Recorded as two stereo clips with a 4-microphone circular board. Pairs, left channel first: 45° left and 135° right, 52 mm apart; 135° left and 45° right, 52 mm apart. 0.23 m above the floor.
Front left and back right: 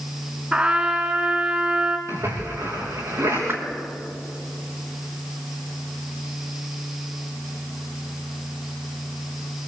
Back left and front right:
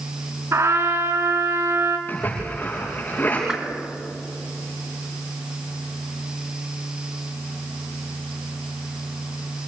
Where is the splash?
165° right, 8 m.